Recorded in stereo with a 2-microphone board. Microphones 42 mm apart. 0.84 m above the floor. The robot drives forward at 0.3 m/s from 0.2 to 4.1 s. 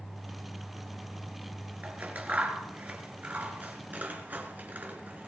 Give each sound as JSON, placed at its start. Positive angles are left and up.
{"t": 1.8, "sound": "scissors", "side_deg": -35, "distance_m": 4.0}